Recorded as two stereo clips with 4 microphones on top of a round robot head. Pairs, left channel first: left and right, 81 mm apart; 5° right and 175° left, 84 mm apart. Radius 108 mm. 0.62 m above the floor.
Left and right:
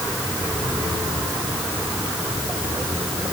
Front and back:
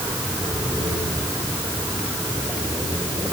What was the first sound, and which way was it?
Only background noise.